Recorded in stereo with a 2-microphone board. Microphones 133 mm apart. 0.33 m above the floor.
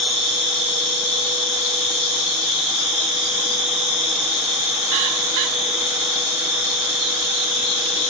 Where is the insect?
45° right (ahead or behind), 1.2 m.